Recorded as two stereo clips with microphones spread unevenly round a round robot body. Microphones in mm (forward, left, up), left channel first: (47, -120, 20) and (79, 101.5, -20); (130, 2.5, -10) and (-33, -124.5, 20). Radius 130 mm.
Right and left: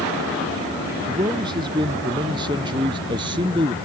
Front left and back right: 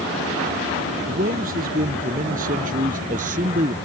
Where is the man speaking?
155° left.